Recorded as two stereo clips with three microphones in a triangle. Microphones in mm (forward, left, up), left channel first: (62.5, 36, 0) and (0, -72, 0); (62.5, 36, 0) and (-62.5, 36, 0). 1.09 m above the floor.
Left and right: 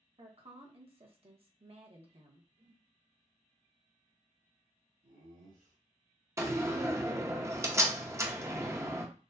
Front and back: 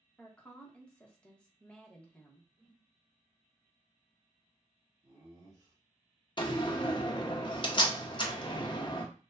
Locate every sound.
0.2 s a woman speaking: 80° right, 1.1 m
2.6 s a whoosh: 120° right, 1.4 m
5.0 s laughter: 115° right, 3 m
6.4 s a door slam: 50° right, 0.8 m